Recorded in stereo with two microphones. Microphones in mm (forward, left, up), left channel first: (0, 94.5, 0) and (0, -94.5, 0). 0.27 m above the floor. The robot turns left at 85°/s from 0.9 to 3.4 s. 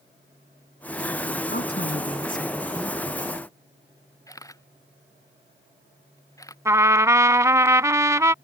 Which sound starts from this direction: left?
A woman speaking, at 1.5 s.